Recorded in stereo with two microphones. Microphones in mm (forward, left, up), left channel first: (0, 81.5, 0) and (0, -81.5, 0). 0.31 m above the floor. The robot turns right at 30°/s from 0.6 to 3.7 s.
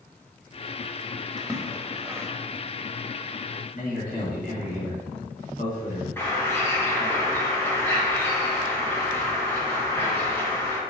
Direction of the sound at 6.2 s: 15° left (ahead or behind).